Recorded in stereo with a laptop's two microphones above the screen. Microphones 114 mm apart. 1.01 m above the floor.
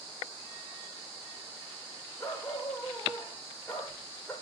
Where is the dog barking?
25° left (ahead or behind), 9 m; by 4.3 s 15° left (ahead or behind), 9 m.